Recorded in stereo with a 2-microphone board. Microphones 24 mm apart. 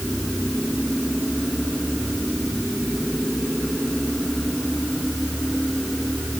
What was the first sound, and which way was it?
Only background noise.